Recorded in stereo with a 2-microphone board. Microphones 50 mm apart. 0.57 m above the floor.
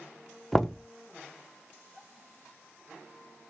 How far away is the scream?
I don't hear a scream.